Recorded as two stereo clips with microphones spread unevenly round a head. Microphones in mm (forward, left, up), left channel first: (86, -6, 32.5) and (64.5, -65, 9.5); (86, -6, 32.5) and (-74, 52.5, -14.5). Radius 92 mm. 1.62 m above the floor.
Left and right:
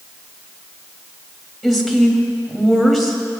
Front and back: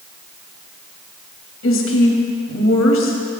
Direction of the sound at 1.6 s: 20° right.